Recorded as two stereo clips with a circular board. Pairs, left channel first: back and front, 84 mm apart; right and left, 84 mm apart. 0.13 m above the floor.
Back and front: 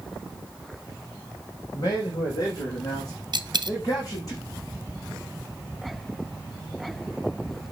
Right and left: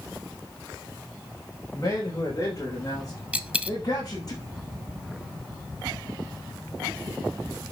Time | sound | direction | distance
1.7 | a man speaking | 145° right | 7 m
3.3 | a dropped coin | 15° left | 1.4 m